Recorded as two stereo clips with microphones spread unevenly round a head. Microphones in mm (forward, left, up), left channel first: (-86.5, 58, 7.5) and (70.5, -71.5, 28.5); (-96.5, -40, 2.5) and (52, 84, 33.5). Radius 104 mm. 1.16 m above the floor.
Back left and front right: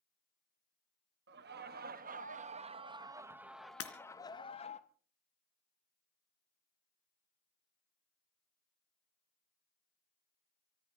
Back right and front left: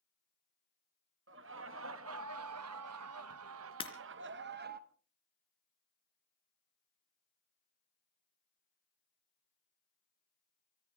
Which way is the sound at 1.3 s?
Straight ahead.